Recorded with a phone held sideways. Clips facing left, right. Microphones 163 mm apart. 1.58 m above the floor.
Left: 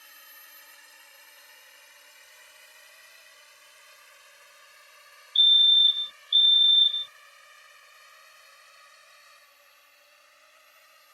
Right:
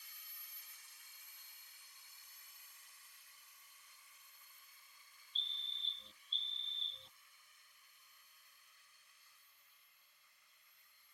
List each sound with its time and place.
0.0 s a drone: 70° left (ahead or behind); by 11.1 s 85° left
5.3 s a fire alarm: 10° right (ahead or behind)